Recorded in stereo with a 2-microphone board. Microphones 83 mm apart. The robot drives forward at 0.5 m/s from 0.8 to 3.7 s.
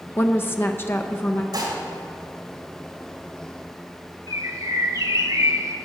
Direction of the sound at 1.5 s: 60° right (ahead or behind).